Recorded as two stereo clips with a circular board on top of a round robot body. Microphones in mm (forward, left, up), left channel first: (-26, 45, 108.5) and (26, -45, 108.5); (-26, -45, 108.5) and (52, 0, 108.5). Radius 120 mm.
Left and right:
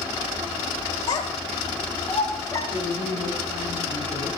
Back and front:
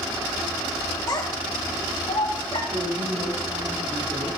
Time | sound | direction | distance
1.1 | a child speaking | 170° left | 2.5 m
2.7 | a woman speaking | 15° right | 7 m